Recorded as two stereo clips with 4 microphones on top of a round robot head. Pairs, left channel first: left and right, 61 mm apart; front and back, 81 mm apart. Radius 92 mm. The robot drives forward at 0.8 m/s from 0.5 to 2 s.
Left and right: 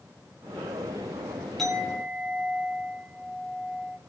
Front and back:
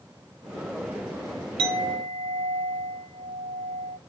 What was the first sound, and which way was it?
A clink, straight behind.